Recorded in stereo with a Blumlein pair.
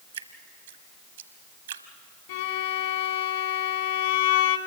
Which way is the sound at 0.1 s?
65° right.